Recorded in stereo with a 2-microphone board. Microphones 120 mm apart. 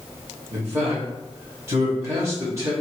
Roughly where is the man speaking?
Right.